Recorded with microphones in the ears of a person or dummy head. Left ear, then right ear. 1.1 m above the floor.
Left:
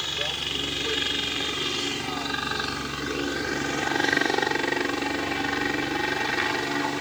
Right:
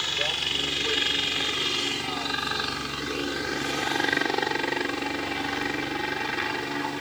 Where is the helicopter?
20° right (ahead or behind); by 7.0 s 10° left (ahead or behind).